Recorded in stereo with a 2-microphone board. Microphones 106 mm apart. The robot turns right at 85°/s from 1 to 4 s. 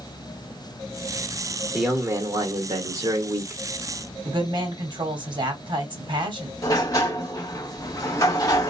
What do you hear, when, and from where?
1.7 s a man speaking: 175° right, 1.0 m; by 3.6 s 20° right, 1.0 m
4.2 s a woman speaking: 50° right (ahead or behind), 1.4 m
6.6 s a sliding door: 35° left (ahead or behind), 1.0 m